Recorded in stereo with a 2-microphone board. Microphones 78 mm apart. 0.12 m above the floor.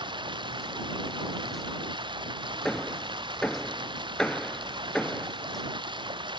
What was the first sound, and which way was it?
Running water, 75° right (ahead or behind).